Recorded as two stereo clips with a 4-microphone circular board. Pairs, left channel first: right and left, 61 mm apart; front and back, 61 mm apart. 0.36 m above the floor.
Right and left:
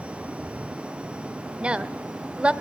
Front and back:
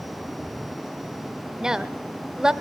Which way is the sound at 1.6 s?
120° left.